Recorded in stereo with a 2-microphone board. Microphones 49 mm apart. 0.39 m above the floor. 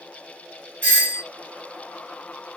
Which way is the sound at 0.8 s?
35° left (ahead or behind).